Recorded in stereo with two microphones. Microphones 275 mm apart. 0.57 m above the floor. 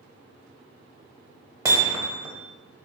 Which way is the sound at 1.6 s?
10° right (ahead or behind).